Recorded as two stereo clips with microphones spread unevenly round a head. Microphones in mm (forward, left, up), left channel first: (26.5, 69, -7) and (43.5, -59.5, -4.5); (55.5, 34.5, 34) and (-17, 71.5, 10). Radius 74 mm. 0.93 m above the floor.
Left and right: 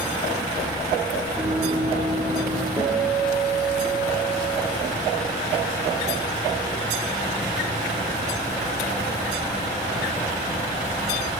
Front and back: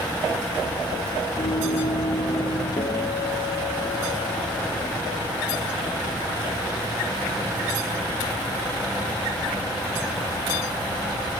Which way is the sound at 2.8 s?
10° right.